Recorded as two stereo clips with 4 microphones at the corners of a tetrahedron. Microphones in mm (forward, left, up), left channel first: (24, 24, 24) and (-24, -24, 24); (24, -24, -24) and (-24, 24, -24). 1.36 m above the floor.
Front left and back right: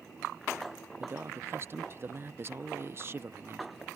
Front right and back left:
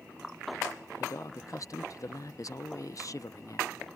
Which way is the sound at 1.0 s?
80° right.